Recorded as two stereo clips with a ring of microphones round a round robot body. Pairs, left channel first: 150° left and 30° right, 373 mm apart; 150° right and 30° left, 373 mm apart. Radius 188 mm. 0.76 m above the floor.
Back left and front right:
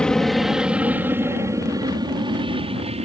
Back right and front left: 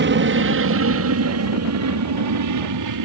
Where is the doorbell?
No doorbell in this recording.